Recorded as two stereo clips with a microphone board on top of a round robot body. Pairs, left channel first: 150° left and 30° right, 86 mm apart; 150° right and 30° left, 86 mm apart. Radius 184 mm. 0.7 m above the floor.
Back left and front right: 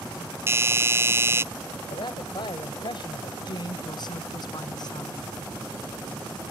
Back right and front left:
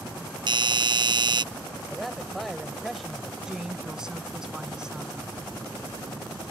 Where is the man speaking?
120° left.